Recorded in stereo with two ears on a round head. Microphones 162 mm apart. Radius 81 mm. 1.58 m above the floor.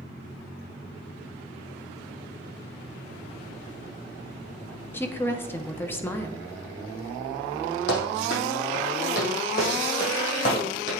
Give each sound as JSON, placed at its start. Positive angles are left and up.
{"t": 4.9, "sound": "a woman speaking", "side_deg": 15, "distance_m": 0.6}
{"t": 7.9, "sound": "running footsteps", "side_deg": 65, "distance_m": 4.0}